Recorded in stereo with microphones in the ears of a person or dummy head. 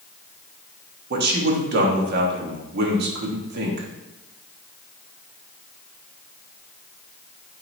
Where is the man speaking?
65° right (ahead or behind), 1.3 m.